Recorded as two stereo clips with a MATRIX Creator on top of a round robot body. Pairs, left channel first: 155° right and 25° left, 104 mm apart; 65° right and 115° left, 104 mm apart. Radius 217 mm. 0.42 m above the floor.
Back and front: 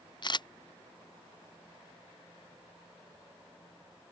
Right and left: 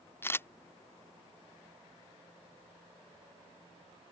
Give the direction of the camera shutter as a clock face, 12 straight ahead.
4 o'clock.